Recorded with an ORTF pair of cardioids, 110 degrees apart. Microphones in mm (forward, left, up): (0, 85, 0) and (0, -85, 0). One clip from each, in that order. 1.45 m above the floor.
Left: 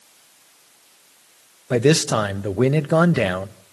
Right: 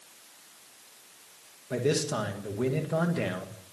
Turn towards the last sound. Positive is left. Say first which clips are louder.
# left 10 dB
turn(degrees=65)